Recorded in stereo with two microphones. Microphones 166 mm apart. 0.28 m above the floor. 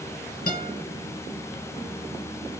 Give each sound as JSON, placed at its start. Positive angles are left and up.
{"t": 0.5, "sound": "a guitar", "side_deg": 65, "distance_m": 3.0}